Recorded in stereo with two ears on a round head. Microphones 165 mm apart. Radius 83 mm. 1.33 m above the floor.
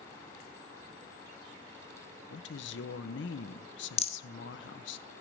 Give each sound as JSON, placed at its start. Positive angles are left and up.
{"t": 2.3, "sound": "a woman speaking", "side_deg": 70, "distance_m": 0.9}
{"t": 4.0, "sound": "a rattle", "side_deg": 35, "distance_m": 1.0}